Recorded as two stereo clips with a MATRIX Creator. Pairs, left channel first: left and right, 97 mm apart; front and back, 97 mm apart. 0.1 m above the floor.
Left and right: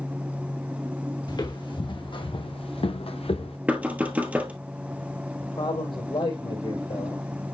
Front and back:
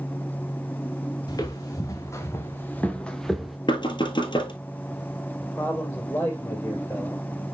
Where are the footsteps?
50° left, 2.0 m; by 3.6 s 95° left, 1.1 m.